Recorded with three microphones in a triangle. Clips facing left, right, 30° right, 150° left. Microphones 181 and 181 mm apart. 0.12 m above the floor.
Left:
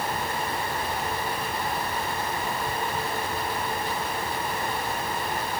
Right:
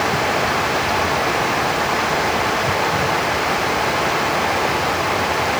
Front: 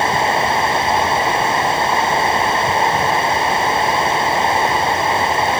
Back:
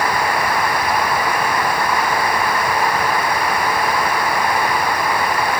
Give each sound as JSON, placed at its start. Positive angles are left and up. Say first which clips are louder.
{"t": 0.0, "sound": "running water", "louder": "right 10 dB, front 2 dB", "azimuth_deg": -95}